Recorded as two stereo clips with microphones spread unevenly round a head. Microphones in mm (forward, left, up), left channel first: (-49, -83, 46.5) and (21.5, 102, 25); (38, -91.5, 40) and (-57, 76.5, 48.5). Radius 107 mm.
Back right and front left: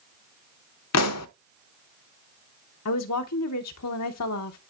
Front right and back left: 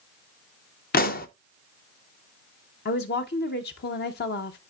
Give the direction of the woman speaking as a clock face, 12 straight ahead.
3 o'clock.